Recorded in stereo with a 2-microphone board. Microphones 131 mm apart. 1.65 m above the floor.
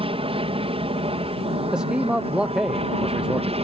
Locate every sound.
0.0 s an aircraft: 45° right (ahead or behind); by 3.6 s 50° right (ahead or behind)
1.7 s a man speaking: 5° right (ahead or behind)